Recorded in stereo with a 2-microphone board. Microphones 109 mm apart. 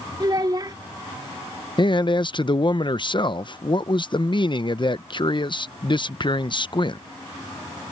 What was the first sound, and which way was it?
A child speaking, 40° right (ahead or behind).